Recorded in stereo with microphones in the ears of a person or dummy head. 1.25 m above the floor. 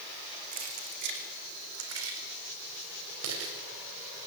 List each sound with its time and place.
0.5 s keys jangling: 35° right (ahead or behind), 2.5 m; by 3.5 s 85° right, 5 m